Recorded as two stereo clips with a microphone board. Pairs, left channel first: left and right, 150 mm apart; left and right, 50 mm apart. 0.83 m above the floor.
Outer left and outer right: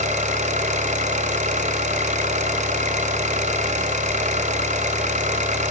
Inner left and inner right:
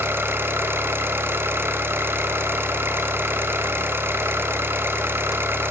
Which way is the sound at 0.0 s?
60° right (ahead or behind).